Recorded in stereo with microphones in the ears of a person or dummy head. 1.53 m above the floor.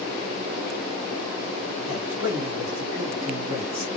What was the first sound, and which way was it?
A man speaking, 25° right (ahead or behind).